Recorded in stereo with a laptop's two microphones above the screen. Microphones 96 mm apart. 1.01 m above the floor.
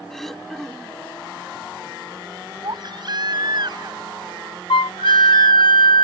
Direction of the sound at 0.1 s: 5° left (ahead or behind).